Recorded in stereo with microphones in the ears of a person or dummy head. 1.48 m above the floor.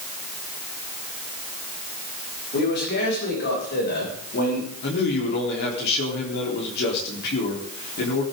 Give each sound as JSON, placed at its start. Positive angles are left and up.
{"t": 2.5, "sound": "a man speaking", "side_deg": 60, "distance_m": 7.5}
{"t": 4.8, "sound": "a man speaking", "side_deg": 60, "distance_m": 4.0}